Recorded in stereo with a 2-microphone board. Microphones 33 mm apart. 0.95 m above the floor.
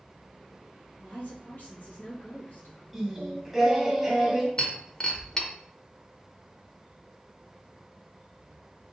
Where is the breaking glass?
25° left (ahead or behind), 0.8 m.